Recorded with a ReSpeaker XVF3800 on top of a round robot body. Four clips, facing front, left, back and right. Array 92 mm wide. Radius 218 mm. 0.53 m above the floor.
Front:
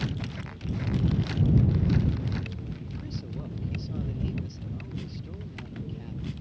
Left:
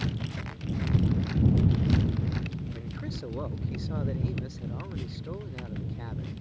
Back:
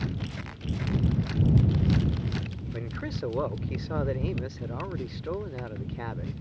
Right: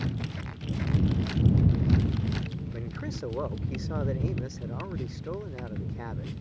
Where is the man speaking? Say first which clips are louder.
Right 2 dB, back 4 dB; 160° right.